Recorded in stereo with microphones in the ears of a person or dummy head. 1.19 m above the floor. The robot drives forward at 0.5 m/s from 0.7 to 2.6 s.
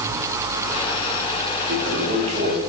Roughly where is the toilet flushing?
Right.